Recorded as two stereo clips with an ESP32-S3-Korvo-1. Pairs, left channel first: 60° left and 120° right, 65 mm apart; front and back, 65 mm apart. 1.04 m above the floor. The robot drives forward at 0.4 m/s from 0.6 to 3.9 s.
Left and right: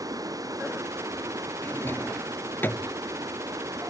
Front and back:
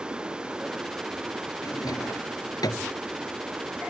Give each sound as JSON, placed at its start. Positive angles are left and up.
{"t": 0.0, "sound": "running water", "azimuth_deg": -105}
{"t": 1.6, "sound": "a drawer", "azimuth_deg": 5}